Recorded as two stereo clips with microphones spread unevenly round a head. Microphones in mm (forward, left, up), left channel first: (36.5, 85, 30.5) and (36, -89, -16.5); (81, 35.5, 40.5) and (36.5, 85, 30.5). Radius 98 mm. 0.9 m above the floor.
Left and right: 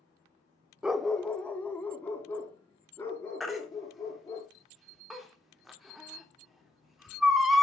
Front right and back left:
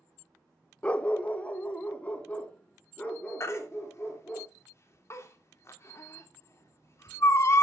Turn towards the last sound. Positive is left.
turn(degrees=-5)